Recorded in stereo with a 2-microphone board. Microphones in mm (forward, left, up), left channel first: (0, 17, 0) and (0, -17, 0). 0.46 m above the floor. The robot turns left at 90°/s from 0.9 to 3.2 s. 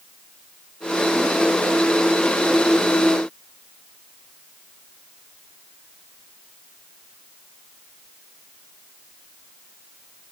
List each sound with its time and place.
Only background noise.